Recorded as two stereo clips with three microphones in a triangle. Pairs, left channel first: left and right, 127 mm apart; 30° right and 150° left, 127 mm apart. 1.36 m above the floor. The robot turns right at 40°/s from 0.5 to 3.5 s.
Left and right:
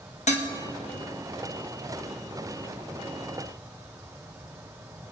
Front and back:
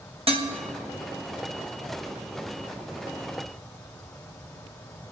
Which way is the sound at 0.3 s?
110° left.